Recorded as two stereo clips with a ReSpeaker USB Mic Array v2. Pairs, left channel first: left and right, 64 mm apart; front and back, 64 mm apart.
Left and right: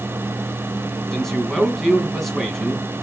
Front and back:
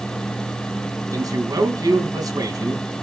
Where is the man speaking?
175° left, 3 m.